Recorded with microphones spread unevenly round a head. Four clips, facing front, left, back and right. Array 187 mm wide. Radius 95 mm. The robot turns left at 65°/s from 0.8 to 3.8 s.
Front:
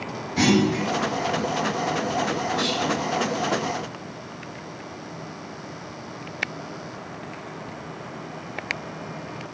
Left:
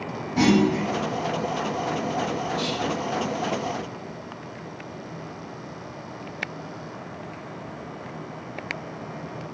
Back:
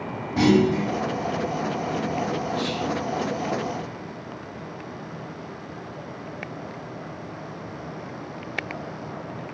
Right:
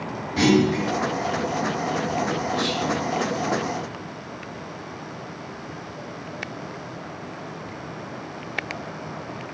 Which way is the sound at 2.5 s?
150° left.